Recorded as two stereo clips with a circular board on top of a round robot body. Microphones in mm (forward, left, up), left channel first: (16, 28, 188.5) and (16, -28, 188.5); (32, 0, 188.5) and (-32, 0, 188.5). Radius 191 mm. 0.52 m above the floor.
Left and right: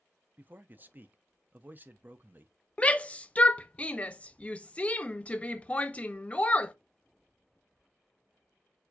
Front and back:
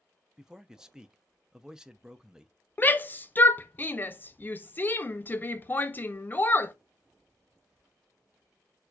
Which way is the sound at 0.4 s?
105° right.